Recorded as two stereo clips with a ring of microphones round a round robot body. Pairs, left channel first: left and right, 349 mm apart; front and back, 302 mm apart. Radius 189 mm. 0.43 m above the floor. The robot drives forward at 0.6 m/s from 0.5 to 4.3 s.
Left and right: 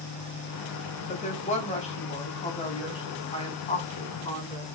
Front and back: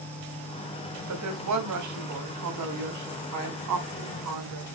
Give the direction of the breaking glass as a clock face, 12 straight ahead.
I don't hear breaking glass.